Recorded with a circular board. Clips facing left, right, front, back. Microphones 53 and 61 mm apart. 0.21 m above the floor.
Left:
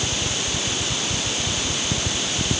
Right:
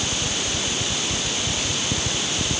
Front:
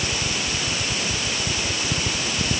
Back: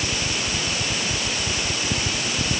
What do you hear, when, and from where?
Only background noise.